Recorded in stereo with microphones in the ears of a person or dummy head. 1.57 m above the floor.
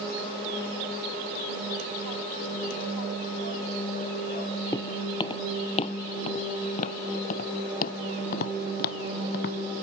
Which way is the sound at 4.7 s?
20° left (ahead or behind).